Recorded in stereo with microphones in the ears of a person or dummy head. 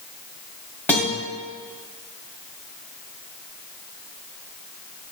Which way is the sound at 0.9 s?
15° left (ahead or behind).